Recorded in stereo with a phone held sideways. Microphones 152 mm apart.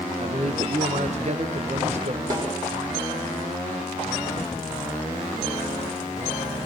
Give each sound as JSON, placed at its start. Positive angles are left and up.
{"t": 0.2, "sound": "a man speaking", "side_deg": -50, "distance_m": 0.9}
{"t": 2.3, "sound": "a snare drum", "side_deg": -30, "distance_m": 6.0}